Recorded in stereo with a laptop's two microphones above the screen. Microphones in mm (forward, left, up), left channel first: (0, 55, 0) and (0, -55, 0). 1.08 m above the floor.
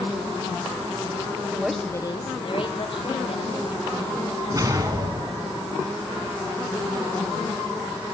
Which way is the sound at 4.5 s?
35° right (ahead or behind).